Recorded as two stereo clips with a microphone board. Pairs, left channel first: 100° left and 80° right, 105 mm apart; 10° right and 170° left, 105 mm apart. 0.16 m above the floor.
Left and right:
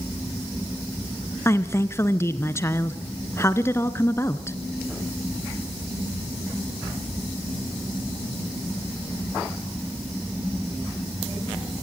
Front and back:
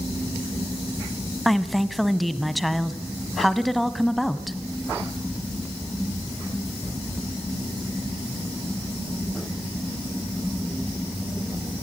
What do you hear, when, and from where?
1.4 s a woman speaking: 80° left, 1.1 m